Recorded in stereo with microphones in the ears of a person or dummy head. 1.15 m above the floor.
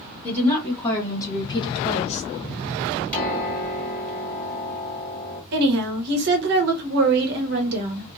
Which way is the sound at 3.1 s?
10° left (ahead or behind).